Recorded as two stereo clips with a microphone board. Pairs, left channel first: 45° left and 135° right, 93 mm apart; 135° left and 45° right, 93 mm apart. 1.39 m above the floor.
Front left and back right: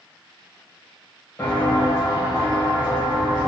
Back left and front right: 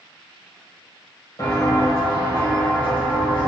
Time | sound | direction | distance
1.4 | footsteps | 100° left | 2.0 m